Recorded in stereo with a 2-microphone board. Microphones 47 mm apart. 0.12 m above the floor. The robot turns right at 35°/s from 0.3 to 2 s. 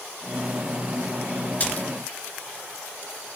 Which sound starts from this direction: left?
A splash, at 1.6 s.